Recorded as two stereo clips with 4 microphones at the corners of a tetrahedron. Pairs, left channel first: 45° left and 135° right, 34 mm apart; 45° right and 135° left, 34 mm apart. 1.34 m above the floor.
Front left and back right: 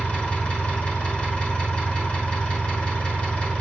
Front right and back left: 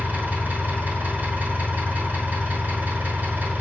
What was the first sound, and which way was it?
An engine running, 100° left.